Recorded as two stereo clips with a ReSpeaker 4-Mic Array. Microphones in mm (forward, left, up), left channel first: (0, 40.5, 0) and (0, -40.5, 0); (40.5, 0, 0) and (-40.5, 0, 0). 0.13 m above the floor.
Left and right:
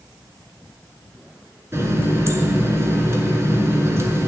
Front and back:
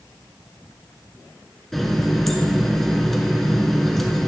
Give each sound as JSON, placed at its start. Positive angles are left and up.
{"t": 1.7, "sound": "a running tap", "azimuth_deg": -85, "distance_m": 1.1}